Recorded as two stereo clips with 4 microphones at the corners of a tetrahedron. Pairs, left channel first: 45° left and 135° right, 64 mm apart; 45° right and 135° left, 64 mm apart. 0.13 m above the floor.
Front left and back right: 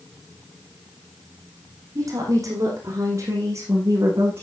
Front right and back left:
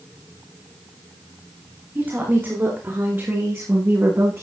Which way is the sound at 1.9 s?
165° right.